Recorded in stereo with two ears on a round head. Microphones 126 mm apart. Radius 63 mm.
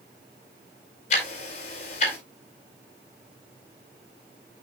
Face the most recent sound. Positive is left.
turn(degrees=55)  # may be behind; listen again after turning